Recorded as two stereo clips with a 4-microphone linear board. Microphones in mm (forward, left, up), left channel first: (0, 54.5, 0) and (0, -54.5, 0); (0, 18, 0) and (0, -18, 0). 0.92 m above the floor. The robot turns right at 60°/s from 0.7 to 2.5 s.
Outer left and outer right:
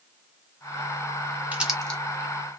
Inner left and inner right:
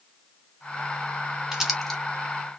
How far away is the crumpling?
About 0.9 m.